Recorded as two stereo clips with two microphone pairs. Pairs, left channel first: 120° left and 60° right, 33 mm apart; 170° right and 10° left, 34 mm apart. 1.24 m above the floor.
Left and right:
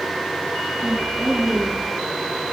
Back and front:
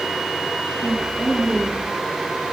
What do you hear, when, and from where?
0.8 s a woman speaking: 120° right, 1.7 m; by 1.9 s 135° right, 2.5 m